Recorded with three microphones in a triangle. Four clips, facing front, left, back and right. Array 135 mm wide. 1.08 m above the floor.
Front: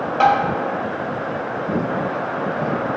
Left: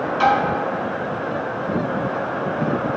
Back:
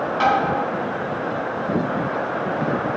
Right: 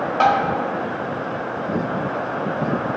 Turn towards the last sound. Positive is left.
turn(degrees=-85)